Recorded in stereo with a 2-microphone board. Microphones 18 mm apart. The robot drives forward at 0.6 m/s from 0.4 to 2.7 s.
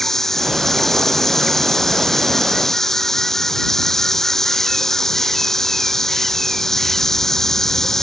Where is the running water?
25° left (ahead or behind).